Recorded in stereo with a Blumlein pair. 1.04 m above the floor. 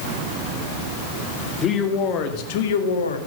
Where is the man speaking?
25° left, 2.5 m; by 3.2 s 70° left, 1.9 m.